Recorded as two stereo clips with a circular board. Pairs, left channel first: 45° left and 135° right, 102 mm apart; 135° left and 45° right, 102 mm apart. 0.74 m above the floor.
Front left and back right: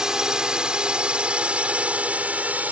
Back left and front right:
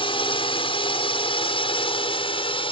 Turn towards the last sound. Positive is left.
turn(degrees=150)